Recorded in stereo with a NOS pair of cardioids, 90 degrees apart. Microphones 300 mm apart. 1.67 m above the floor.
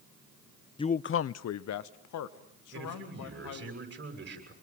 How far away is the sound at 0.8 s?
About 0.6 m.